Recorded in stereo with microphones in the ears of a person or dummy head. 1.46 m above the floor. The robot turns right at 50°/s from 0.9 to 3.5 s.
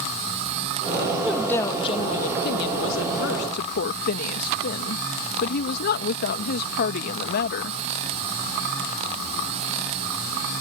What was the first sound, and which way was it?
A woman speaking, straight ahead.